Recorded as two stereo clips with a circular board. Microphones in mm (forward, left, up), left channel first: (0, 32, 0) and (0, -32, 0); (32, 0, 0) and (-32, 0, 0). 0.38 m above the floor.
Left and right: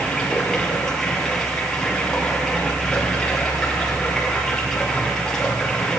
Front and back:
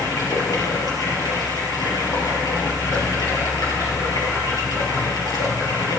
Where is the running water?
10° left, 4.5 m.